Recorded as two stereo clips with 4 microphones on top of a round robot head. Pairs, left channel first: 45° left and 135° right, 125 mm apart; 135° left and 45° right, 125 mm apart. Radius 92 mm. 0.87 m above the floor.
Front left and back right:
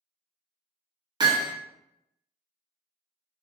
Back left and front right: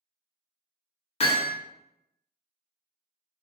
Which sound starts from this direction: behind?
Hammering, at 1.2 s.